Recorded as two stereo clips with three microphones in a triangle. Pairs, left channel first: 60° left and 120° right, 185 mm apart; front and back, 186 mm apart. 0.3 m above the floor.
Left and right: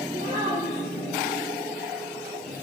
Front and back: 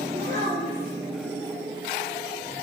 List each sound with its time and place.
0.1 s a child speaking: 155° right, 5.5 m